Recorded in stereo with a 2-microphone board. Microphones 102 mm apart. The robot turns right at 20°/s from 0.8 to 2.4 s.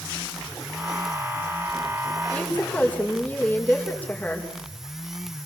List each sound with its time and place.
2.3 s a woman speaking: 15° left (ahead or behind), 5.5 m